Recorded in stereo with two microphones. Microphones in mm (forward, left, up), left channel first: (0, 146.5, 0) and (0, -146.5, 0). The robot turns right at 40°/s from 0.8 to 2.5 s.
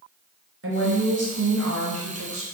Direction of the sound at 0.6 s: 125° right.